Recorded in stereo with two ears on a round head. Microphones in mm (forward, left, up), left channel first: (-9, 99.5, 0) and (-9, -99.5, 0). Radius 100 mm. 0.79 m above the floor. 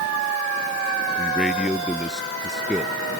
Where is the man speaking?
Centre (ahead or behind).